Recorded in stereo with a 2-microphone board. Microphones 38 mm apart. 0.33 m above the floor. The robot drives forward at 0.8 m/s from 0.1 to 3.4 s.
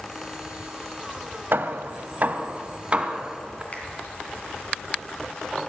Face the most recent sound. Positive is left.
turn(degrees=35)  # may be behind; listen again after turning